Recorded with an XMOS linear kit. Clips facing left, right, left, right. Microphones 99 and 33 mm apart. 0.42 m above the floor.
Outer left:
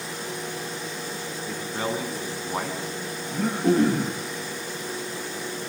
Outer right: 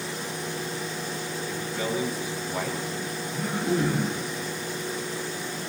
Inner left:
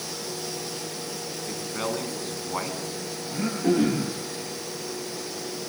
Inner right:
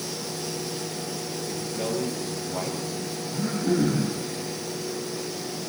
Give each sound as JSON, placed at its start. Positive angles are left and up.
{"t": 1.5, "sound": "a man speaking", "side_deg": 45, "distance_m": 5.5}
{"t": 3.3, "sound": "throat clearing", "side_deg": 70, "distance_m": 10.0}